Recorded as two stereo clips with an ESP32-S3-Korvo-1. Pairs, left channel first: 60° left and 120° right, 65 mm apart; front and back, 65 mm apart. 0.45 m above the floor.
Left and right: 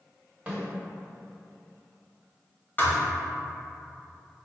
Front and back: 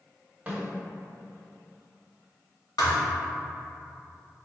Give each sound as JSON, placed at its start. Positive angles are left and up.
{"t": 0.5, "sound": "a snare drum", "azimuth_deg": -145, "distance_m": 1.3}
{"t": 2.8, "sound": "a thud", "azimuth_deg": 5, "distance_m": 0.7}